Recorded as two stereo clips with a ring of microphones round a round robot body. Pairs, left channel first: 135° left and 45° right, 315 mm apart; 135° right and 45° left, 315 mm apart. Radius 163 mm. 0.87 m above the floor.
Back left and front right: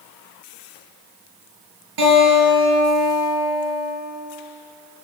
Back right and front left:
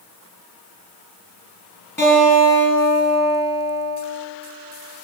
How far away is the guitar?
About 3.5 m.